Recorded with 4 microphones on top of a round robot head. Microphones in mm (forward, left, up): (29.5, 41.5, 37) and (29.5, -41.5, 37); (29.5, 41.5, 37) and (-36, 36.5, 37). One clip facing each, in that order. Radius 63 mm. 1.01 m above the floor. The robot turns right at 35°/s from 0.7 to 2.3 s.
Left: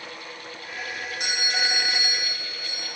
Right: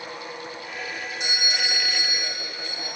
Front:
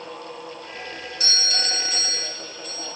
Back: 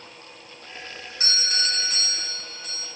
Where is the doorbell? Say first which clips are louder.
Left 2 dB, back 1 dB; 130° left, 2.5 m; by 2.9 s 170° left, 2.5 m.